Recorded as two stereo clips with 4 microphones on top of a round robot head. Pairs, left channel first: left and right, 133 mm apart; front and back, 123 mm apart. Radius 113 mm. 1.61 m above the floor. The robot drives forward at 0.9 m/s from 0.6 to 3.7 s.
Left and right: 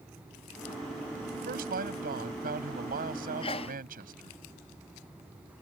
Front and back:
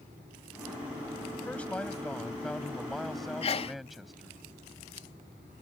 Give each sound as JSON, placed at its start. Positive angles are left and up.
{"t": 1.3, "sound": "a man speaking", "azimuth_deg": -85}
{"t": 3.4, "sound": "a sneeze", "azimuth_deg": 30}